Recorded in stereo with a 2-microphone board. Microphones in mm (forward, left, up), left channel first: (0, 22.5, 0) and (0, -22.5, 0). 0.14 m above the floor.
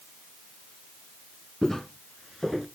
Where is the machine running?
I don't hear a machine running.